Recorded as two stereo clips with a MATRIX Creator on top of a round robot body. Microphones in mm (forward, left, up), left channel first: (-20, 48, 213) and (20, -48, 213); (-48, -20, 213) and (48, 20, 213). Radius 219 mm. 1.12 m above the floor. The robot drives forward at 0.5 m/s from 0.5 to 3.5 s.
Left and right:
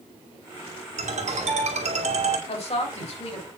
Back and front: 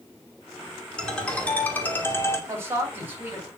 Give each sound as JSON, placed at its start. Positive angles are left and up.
{"t": 1.0, "sound": "a ringtone", "azimuth_deg": -75, "distance_m": 2.0}
{"t": 2.5, "sound": "a woman speaking", "azimuth_deg": 90, "distance_m": 4.0}